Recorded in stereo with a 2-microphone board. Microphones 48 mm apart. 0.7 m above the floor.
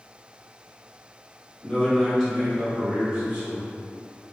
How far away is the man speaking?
About 1.3 m.